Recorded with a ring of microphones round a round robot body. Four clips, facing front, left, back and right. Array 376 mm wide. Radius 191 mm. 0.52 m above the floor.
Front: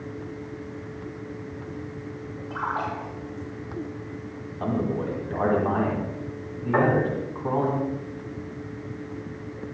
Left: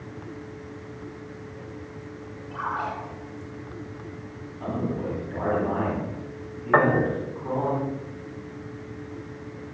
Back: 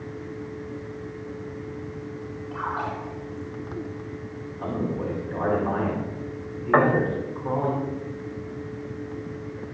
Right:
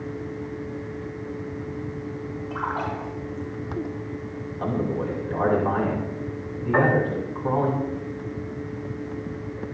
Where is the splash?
35° right, 10 m.